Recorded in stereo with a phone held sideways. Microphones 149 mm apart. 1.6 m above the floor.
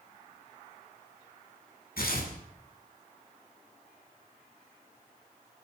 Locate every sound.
2.0 s tearing paper: 80° left, 8 m